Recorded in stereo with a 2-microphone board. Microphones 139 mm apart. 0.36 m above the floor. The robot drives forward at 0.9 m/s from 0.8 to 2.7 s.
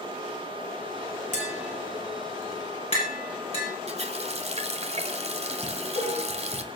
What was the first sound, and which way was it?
Tapping, 55° left (ahead or behind).